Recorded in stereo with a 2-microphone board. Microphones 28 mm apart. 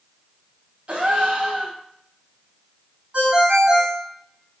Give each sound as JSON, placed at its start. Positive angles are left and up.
{"t": 0.9, "sound": "a gasp", "side_deg": -45, "distance_m": 0.7}
{"t": 3.1, "sound": "a ringtone", "side_deg": -45, "distance_m": 1.8}